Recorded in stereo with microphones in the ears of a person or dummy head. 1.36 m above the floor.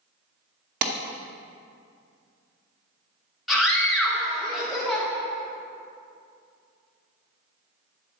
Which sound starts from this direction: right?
A clap, at 0.8 s.